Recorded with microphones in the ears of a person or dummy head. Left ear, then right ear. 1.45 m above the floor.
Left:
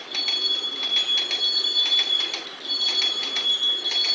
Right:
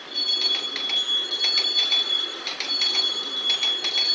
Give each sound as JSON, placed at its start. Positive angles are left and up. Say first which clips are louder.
{"t": 0.0, "sound": "a vehicle", "louder": "right 1 dB", "side_deg": 0}